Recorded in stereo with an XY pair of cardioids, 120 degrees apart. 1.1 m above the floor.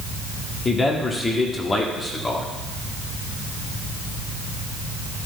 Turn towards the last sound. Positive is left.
turn(degrees=25)